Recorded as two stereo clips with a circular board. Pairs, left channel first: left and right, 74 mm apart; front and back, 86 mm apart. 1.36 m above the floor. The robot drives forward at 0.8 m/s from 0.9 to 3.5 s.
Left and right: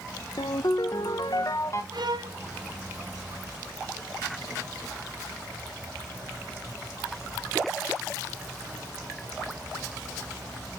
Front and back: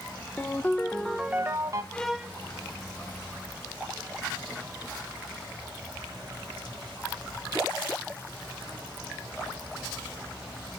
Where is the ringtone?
70° left, 0.6 m; by 1.8 s 135° left, 0.8 m.